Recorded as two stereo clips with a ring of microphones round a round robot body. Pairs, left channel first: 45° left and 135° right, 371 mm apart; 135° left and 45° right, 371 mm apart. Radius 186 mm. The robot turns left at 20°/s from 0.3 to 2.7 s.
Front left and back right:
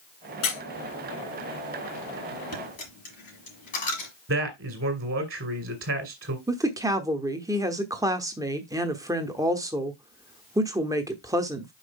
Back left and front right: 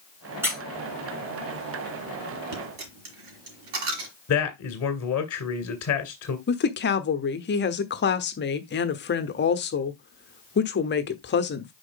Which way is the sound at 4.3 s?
175° left.